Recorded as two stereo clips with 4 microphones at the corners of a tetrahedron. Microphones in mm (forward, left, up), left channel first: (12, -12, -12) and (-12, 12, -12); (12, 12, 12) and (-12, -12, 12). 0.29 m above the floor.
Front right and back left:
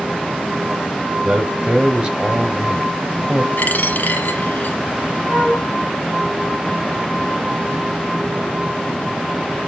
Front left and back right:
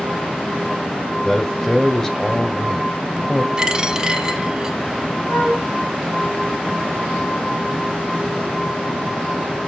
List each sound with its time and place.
1.2 s a man speaking: 115° left, 1.5 m
3.6 s a dropped coin: 65° right, 1.2 m
5.3 s a flute: 60° left, 3.5 m